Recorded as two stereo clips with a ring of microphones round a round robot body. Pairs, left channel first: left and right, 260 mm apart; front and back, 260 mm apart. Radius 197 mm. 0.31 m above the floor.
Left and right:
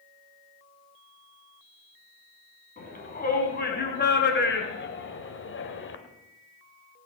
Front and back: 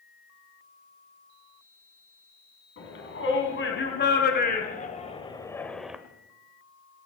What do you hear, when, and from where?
2.8 s a shout: 35° left, 3.5 m; by 6.0 s 95° left, 1.7 m